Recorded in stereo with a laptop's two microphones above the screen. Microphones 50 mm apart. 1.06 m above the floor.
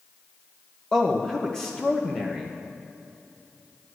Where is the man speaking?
15° left (ahead or behind), 0.9 m.